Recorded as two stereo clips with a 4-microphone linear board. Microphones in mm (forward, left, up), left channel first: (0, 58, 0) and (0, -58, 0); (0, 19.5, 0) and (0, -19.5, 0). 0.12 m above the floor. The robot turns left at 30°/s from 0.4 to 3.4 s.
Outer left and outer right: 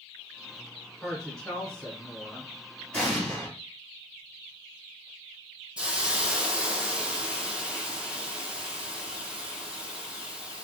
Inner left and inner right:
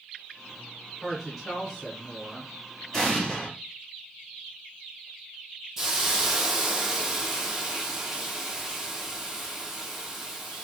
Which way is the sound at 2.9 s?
10° left (ahead or behind).